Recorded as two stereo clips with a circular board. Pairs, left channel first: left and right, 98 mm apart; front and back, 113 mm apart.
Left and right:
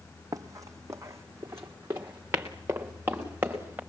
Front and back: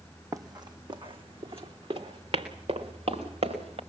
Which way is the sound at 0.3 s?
130° right.